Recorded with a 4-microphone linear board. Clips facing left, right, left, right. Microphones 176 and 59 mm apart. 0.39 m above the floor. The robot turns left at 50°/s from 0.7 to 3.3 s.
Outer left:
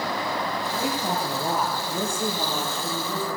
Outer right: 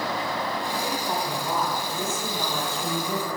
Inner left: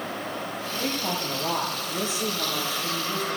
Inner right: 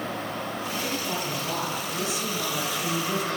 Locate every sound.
0.8 s a woman speaking: 95° left, 8.5 m; by 3.3 s 25° right, 8.5 m